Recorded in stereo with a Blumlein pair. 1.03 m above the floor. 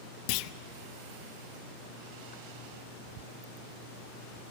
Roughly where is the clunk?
Ahead left.